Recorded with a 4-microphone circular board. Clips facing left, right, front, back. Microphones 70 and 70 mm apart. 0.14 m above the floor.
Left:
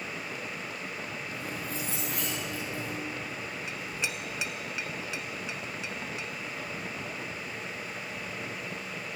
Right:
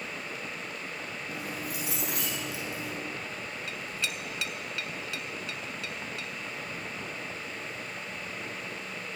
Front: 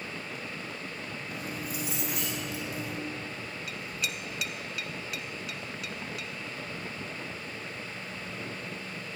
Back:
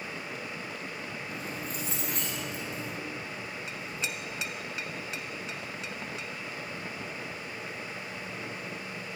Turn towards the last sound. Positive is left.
turn(degrees=140)